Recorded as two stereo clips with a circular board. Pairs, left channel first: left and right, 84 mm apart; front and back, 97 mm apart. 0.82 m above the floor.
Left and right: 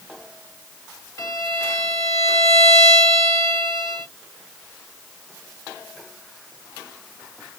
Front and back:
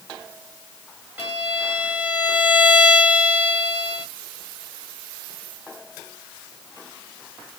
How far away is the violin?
About 1.3 m.